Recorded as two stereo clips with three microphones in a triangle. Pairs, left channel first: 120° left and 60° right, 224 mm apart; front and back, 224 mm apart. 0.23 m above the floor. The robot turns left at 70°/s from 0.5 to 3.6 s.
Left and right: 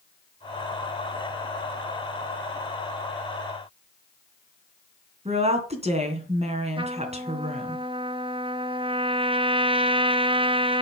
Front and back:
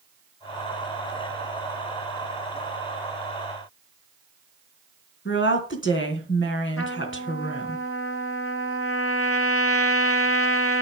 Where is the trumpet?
10° left, 1.0 m.